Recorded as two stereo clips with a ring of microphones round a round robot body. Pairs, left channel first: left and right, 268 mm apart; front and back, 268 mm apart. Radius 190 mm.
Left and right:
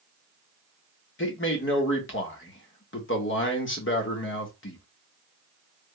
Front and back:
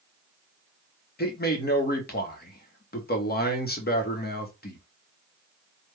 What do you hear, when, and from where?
1.2 s a man speaking: 50° left, 1.3 m